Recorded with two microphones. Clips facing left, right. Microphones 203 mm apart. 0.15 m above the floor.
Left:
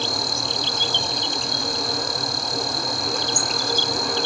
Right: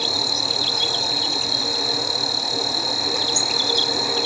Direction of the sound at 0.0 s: 5° right (ahead or behind).